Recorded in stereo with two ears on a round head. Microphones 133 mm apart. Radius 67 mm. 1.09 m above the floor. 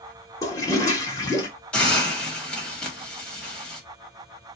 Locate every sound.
0.4 s a toilet flushing: 20° left (ahead or behind), 0.8 m
1.7 s a hiss: 5° left (ahead or behind), 1.1 m